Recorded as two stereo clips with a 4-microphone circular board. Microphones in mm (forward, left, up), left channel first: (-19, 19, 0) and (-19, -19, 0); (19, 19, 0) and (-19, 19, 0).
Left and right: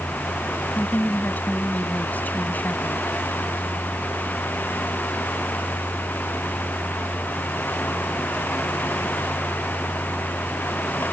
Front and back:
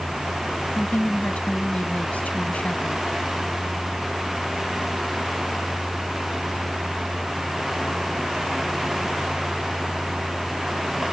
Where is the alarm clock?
No alarm clock in this recording.